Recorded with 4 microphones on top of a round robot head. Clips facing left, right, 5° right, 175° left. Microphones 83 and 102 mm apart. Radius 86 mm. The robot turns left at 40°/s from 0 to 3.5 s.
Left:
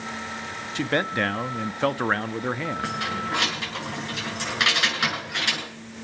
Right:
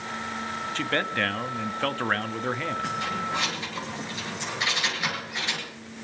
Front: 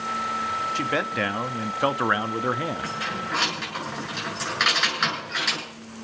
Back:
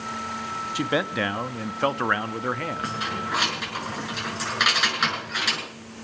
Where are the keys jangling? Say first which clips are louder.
Left 1 dB, back 1 dB; 120° left, 7 m; by 5.6 s 90° left, 7 m.